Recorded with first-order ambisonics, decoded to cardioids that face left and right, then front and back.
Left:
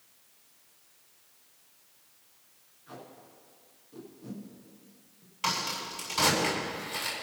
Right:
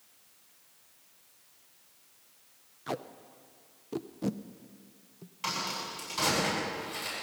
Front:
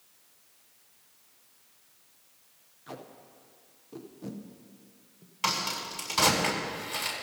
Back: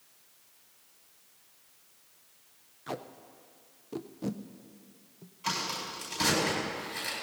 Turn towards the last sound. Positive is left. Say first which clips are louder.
# left 3 dB, front 3 dB
turn(degrees=15)